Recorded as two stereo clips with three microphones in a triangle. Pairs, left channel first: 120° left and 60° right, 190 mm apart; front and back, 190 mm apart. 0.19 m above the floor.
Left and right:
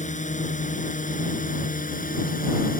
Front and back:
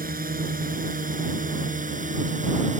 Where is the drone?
155° left; by 2.8 s 145° left.